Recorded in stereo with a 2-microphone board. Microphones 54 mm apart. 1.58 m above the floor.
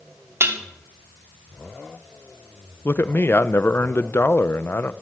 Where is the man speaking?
45° left (ahead or behind), 0.8 m.